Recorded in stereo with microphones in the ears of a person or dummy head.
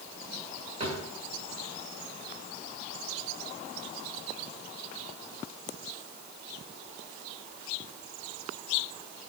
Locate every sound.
0.8 s a drawer: 35° right (ahead or behind), 1.3 m